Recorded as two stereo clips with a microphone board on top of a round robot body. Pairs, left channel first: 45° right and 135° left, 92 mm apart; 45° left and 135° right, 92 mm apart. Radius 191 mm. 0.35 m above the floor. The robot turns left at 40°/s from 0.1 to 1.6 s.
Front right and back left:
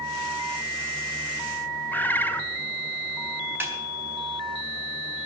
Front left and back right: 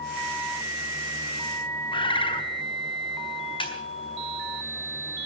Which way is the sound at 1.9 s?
25° left.